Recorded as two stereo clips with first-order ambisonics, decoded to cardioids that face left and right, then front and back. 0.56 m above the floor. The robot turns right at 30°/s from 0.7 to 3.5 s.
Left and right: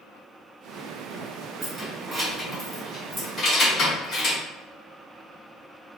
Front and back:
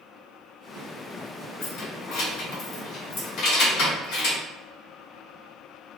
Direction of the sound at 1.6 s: 35° right.